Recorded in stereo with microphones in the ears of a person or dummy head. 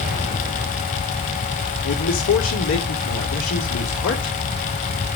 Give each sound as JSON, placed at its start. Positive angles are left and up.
{"t": 1.8, "sound": "a man speaking", "side_deg": 70, "distance_m": 3.0}